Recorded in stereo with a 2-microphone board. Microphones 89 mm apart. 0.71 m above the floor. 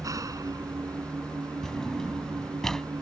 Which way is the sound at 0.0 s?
40° right (ahead or behind).